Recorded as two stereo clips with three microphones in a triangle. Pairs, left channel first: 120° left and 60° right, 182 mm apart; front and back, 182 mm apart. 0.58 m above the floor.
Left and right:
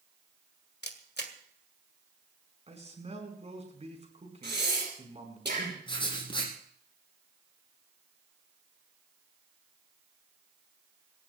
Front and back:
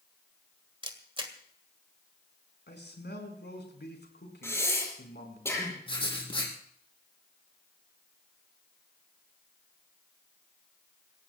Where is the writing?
60° left, 5 m.